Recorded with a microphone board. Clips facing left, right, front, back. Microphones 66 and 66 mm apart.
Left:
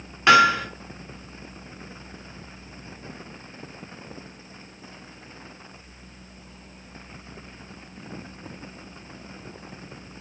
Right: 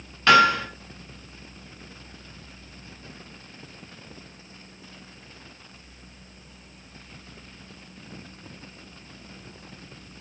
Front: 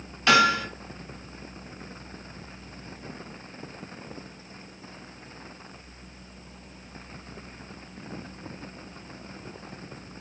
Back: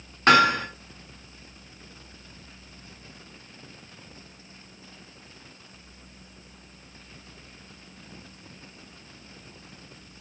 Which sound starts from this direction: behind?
Hammering, at 0.3 s.